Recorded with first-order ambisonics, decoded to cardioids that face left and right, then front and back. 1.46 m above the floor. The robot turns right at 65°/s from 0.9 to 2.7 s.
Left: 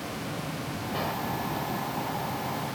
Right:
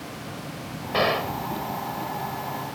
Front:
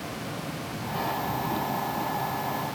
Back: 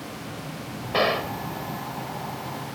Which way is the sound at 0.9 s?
145° right.